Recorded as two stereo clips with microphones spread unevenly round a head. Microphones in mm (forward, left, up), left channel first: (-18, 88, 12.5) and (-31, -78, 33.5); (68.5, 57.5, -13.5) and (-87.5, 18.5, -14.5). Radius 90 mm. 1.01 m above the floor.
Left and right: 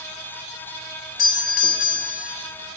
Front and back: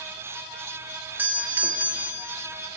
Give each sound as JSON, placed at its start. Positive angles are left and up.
{"t": 1.2, "sound": "a doorbell", "azimuth_deg": 115, "distance_m": 2.5}